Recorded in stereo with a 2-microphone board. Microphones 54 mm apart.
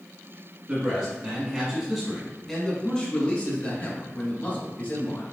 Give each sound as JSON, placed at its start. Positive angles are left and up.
{"t": 0.7, "sound": "a man speaking", "side_deg": -25, "distance_m": 1.5}